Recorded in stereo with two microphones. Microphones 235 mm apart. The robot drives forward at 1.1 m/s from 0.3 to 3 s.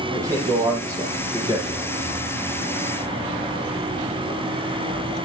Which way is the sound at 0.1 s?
15° right (ahead or behind).